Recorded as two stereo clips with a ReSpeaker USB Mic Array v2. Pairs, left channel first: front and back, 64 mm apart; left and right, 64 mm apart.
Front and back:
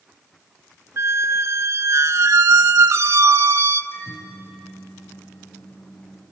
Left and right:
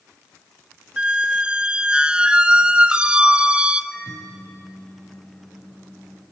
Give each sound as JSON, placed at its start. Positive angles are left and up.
{"t": 1.0, "sound": "a squeak", "azimuth_deg": -160, "distance_m": 0.6}
{"t": 3.9, "sound": "a microwave", "azimuth_deg": 10, "distance_m": 6.5}